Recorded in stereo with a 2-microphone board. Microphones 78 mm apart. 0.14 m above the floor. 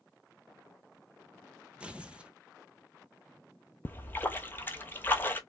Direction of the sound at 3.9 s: 25° left (ahead or behind).